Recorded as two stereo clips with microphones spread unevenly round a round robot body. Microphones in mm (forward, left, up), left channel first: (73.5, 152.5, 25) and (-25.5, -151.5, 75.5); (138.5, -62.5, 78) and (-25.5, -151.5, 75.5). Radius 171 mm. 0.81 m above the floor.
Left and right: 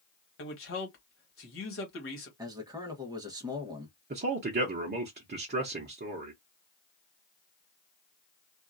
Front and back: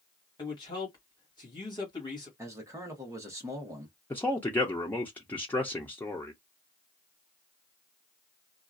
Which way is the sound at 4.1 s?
50° right.